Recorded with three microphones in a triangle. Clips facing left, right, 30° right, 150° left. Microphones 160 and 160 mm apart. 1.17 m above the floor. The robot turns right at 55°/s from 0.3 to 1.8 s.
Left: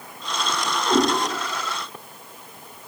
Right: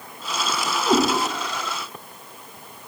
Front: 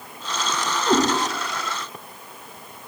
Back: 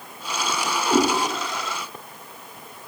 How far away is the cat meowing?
About 1.7 m.